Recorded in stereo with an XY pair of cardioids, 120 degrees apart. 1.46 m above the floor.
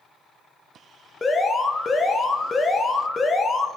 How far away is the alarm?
About 1.4 m.